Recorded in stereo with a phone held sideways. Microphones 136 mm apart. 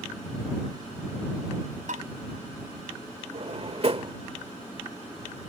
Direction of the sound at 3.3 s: 50° right (ahead or behind).